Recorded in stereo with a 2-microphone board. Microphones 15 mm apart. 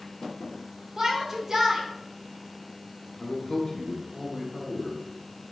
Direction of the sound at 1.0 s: 30° right (ahead or behind).